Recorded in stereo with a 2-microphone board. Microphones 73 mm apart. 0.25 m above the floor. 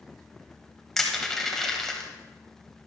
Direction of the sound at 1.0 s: 5° left (ahead or behind).